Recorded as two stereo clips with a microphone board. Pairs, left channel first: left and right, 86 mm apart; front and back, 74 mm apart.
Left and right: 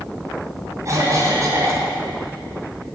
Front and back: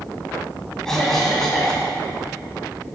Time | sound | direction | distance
0.8 | a cough | 80° right | 1.9 m